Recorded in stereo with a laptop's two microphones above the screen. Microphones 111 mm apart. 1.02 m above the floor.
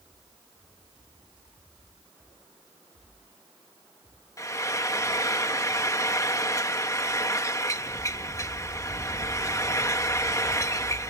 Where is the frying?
30° left (ahead or behind).